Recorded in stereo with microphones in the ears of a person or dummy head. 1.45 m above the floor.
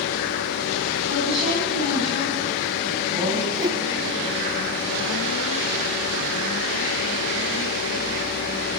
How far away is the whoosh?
About 1.0 m.